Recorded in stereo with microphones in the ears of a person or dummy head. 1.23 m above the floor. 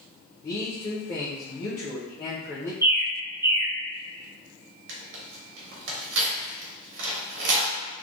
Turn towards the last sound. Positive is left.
turn(degrees=-60)  # may be behind; listen again after turning